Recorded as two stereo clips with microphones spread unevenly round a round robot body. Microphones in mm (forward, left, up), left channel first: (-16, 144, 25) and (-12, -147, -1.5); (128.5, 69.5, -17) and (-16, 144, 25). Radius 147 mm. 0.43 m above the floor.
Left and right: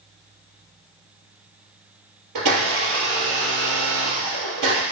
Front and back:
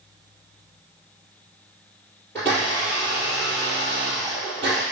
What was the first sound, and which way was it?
A blender, 115° right.